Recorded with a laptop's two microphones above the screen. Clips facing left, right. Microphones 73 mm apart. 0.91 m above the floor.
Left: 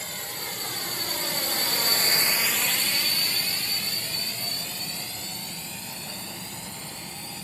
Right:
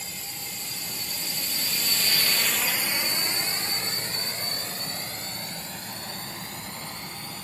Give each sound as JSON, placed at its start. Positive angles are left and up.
{"t": 0.0, "sound": "a drone", "side_deg": 60}